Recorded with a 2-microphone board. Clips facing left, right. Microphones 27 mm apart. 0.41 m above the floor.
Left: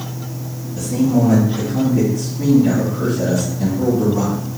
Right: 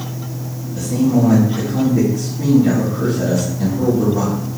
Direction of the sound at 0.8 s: 15° right (ahead or behind).